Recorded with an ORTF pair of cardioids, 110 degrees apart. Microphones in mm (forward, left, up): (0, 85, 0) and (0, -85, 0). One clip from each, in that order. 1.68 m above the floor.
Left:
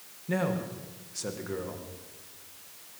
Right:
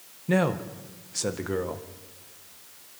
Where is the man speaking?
40° right, 1.9 m.